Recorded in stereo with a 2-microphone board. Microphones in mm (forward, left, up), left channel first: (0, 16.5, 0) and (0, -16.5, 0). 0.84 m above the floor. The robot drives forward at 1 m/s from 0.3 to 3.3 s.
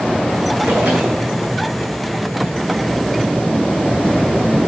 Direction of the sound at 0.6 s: 90° right.